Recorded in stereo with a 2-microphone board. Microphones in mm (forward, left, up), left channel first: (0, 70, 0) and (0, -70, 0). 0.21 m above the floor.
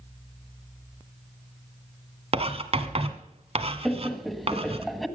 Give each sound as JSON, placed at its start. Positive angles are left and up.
{"t": 2.3, "sound": "writing", "side_deg": -45, "distance_m": 1.3}
{"t": 3.9, "sound": "laughter", "side_deg": 0, "distance_m": 1.2}